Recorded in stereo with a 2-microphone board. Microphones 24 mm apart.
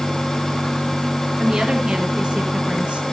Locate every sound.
1.4 s a woman speaking: 35° right (ahead or behind), 3.5 m; by 3.0 s 50° right (ahead or behind), 3 m